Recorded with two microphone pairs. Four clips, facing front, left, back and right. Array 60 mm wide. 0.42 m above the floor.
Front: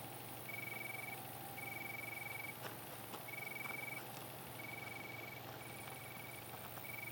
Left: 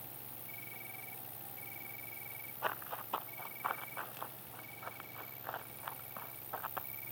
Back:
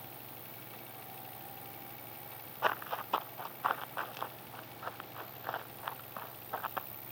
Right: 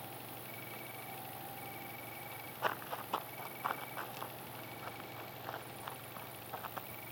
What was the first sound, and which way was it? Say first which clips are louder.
An insect: right 6 dB, back 1 dB; 10° left.